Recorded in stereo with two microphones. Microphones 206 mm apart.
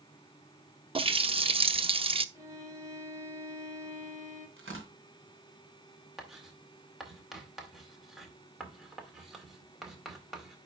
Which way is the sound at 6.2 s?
Centre (ahead or behind).